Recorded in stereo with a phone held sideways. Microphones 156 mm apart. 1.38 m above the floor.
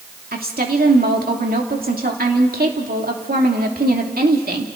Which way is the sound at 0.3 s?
70° right (ahead or behind).